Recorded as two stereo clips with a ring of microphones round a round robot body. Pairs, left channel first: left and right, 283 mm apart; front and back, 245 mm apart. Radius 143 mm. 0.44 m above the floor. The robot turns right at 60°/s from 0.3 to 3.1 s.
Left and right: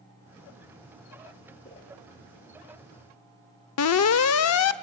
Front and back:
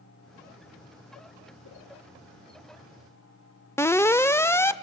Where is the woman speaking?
I don't hear a woman speaking.